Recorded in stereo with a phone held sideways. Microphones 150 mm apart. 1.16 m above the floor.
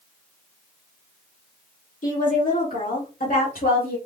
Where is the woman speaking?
60° left (ahead or behind), 2.5 m; by 4.0 s 80° left, 2.5 m.